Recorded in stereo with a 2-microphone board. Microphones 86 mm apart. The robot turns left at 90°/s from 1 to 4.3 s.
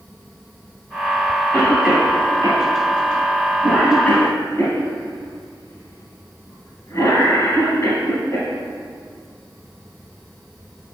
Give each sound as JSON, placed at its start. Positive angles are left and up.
{"t": 1.5, "sound": "a cough", "side_deg": 15, "distance_m": 2.0}